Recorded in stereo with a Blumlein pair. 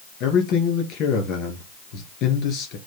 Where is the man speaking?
35° left, 2 m.